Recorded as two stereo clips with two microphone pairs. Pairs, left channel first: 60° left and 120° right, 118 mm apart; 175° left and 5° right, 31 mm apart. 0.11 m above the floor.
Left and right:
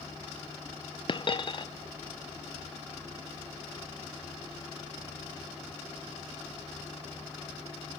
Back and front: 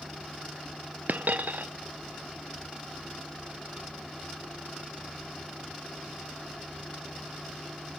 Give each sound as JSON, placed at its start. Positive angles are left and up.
{"t": 1.1, "sound": "a dropped coin", "azimuth_deg": 15, "distance_m": 0.8}